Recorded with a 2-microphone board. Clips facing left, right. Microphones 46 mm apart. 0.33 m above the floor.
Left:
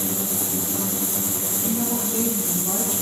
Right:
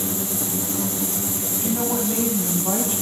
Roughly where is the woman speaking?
Right.